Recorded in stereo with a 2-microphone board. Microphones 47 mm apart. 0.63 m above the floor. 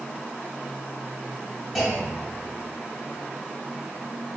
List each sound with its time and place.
1.8 s a clunk: 5° right (ahead or behind), 1.5 m